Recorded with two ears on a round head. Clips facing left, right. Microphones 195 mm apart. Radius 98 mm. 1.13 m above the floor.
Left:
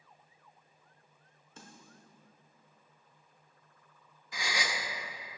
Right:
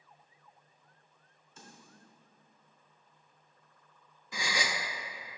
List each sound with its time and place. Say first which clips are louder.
1.6 s a snare drum: left 1 dB; 50° left (ahead or behind), 1.1 m
4.3 s a gasp: right 2 dB; 75° right (ahead or behind), 0.7 m